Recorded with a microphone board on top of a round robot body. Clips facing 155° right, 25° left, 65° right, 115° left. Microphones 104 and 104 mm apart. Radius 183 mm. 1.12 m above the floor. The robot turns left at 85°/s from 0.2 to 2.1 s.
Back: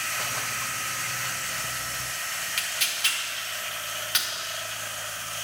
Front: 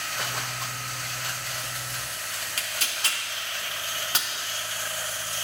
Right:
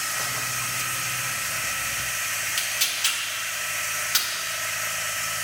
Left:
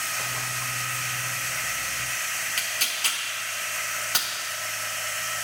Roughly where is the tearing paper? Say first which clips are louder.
Front 1 dB, even; left.